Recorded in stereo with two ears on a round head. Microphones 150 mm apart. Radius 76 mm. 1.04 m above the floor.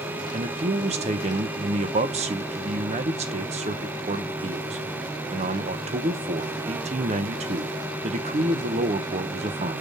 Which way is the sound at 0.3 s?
40° right (ahead or behind).